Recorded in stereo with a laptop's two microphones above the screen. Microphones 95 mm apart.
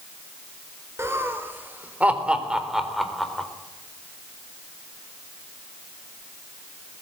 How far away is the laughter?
About 4 m.